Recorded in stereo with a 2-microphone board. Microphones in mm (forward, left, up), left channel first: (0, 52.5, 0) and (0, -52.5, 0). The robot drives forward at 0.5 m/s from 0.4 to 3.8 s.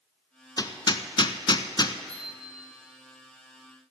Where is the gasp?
I don't hear a gasp.